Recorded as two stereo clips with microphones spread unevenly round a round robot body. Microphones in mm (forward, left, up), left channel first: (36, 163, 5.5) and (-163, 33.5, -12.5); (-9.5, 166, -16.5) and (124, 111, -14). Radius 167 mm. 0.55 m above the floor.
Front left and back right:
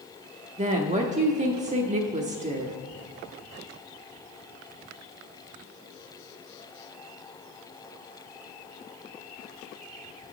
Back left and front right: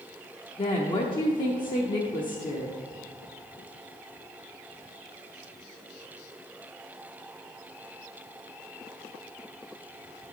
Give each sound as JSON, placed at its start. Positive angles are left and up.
{"t": 0.6, "sound": "a woman speaking", "azimuth_deg": -165, "distance_m": 0.7}